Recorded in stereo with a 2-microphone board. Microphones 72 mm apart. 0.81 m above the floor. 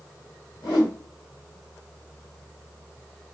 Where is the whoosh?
85° left, 1.6 m.